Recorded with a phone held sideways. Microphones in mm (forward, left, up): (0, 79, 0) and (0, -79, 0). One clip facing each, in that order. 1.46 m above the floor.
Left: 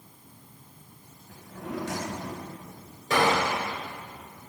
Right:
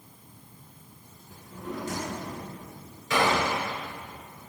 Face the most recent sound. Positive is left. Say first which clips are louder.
# left 1 dB
turn(degrees=50)  # may be behind; listen again after turning